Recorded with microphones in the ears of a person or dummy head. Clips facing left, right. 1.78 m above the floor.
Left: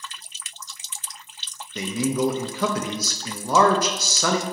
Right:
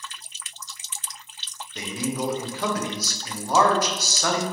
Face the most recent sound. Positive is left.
turn(degrees=70)  # may be behind; listen again after turning